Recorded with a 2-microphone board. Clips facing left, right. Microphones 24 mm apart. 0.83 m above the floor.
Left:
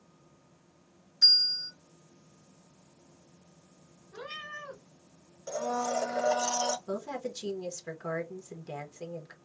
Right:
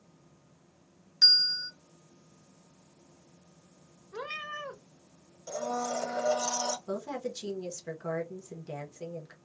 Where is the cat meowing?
55° right (ahead or behind), 0.8 m.